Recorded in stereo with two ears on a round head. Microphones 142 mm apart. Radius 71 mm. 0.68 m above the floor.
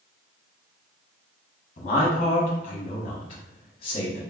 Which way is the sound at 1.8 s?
40° left (ahead or behind).